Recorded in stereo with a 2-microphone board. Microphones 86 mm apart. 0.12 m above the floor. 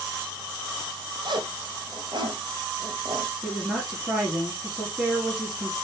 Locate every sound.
1.2 s a zipper: 70° right (ahead or behind), 1.0 m
3.4 s a woman speaking: 5° right (ahead or behind), 2.5 m